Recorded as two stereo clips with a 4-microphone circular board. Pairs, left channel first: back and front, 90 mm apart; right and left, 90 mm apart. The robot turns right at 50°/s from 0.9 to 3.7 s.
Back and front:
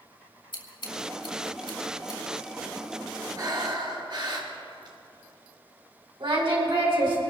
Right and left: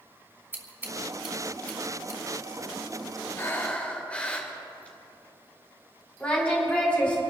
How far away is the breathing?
About 2.5 m.